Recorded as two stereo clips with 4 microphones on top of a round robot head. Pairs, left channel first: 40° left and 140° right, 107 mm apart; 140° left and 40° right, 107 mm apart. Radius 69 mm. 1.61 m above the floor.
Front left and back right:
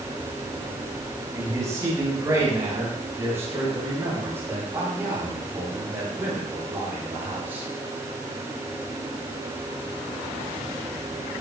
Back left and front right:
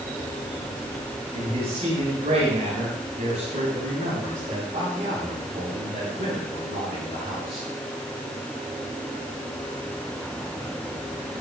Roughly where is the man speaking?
Right.